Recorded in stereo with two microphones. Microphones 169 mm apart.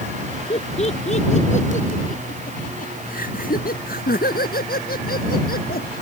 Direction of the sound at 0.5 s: 35° left (ahead or behind).